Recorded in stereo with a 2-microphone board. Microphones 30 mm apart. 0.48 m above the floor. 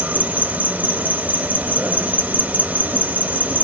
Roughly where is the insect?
Right.